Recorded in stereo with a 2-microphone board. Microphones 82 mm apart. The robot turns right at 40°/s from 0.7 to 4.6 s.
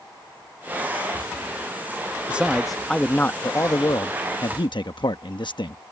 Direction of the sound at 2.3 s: 15° right.